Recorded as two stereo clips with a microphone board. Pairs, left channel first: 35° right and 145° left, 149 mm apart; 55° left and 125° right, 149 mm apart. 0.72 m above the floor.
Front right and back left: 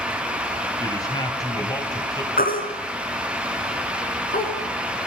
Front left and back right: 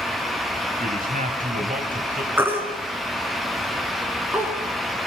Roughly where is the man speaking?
Right.